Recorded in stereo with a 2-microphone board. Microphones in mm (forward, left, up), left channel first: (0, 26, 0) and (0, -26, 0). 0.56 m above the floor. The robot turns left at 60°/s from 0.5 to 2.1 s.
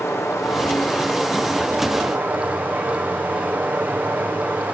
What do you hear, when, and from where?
0.0 s running water: 65° left, 7 m; by 4.7 s 30° right, 7 m